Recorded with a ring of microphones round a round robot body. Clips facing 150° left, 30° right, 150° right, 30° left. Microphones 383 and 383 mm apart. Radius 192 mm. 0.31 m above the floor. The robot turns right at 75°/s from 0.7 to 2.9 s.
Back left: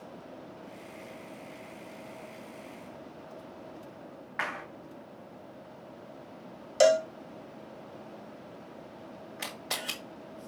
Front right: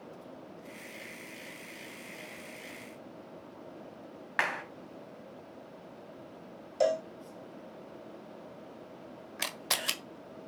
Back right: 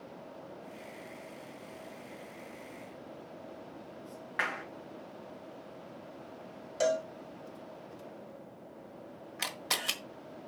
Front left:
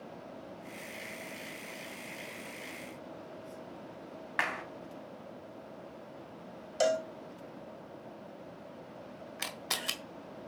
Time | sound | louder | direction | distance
4.4 | a clap | front right 2 dB, even | 30° right | 2.5 m
6.8 | a cowbell | back left 6 dB, front left 1 dB | 105° left | 0.6 m
9.4 | a camera shutter | front right 1 dB, back right 2 dB | 55° right | 1.3 m